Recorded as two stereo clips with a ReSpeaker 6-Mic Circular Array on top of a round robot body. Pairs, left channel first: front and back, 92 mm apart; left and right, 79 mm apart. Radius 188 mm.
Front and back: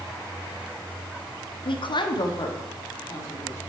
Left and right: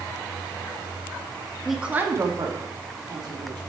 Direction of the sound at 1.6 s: Straight ahead.